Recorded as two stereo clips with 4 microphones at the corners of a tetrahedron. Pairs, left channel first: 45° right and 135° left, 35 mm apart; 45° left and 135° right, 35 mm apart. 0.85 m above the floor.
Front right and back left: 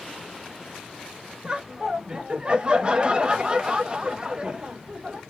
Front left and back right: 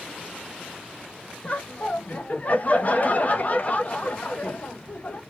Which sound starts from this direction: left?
Laughter, at 1.4 s.